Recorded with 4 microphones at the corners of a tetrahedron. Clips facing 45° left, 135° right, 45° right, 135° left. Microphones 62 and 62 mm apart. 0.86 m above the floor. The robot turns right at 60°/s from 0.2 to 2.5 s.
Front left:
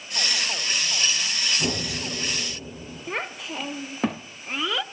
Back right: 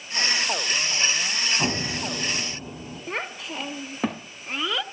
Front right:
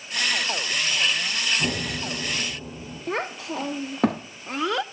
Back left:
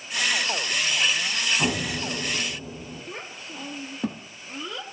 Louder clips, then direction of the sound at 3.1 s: Front left 1 dB, front right 9 dB; 45° right.